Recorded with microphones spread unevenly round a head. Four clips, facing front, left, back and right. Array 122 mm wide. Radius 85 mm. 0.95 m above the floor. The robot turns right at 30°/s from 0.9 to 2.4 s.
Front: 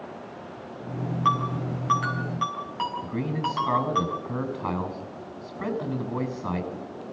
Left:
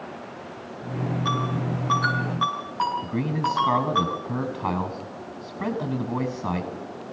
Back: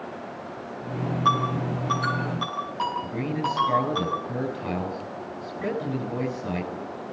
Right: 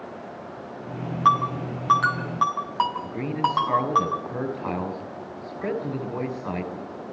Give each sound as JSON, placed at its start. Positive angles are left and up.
{"t": 1.2, "sound": "a ringtone", "azimuth_deg": -95, "distance_m": 6.0}
{"t": 3.0, "sound": "a man speaking", "azimuth_deg": 65, "distance_m": 6.5}